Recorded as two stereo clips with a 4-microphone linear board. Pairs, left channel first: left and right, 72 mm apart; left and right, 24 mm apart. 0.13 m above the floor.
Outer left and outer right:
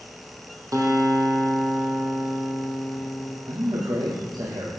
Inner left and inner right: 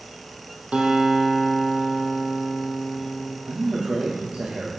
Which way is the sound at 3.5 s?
70° right (ahead or behind).